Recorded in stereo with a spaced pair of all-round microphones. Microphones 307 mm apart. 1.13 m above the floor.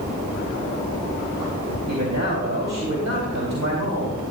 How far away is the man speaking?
About 2.5 m.